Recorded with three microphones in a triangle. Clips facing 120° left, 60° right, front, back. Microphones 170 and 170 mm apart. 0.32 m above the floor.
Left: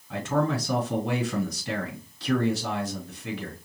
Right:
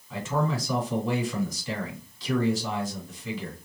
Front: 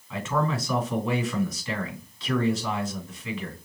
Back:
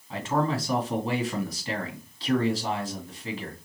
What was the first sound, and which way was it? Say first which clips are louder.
A man speaking: left 2 dB, back 1 dB; 130° left.